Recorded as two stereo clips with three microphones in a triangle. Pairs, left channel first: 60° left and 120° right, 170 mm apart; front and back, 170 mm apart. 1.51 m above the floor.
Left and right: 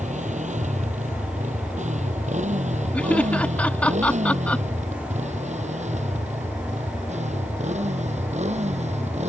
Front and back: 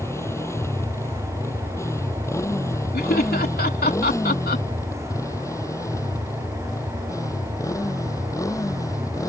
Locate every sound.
0.0 s a motorcycle: 75° right; by 9.3 s 70° right
2.9 s laughter: 20° right